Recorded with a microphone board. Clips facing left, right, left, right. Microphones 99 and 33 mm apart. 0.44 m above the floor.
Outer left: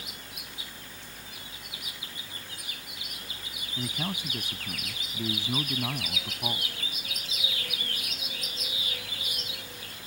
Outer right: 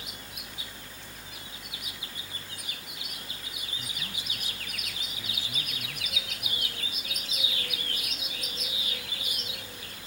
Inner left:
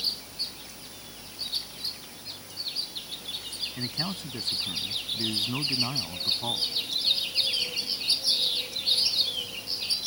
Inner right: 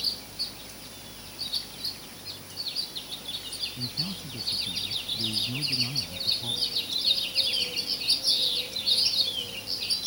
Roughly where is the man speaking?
Left.